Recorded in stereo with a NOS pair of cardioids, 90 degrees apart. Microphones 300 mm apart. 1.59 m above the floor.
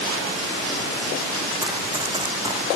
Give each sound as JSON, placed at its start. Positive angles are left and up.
{"t": 1.6, "sound": "running footsteps", "azimuth_deg": -10, "distance_m": 5.0}